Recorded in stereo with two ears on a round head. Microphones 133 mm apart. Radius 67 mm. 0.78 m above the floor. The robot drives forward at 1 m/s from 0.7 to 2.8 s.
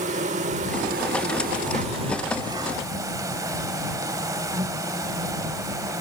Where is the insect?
50° right (ahead or behind); by 6.0 s 25° right (ahead or behind).